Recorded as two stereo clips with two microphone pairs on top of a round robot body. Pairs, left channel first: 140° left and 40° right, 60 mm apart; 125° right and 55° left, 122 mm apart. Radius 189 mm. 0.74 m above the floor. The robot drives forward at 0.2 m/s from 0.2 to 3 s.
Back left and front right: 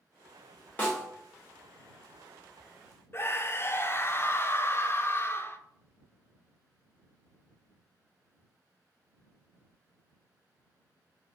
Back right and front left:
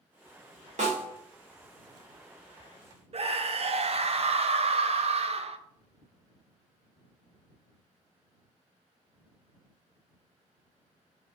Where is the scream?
85° left, 0.5 m.